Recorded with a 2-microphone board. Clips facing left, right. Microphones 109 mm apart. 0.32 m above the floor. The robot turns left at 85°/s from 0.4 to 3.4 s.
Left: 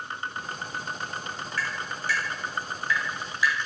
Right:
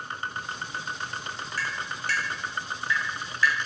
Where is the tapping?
35° right (ahead or behind), 0.7 m; by 3.5 s 15° left (ahead or behind), 0.7 m.